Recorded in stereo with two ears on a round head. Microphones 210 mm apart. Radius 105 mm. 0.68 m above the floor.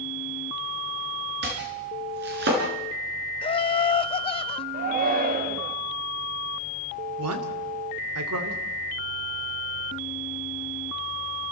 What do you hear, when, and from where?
1.4 s chopping: 45° right (ahead or behind), 4.5 m
3.4 s laughter: 20° left (ahead or behind), 0.7 m
4.7 s a shout: 35° right (ahead or behind), 1.3 m
7.2 s a man speaking: 65° right (ahead or behind), 2.5 m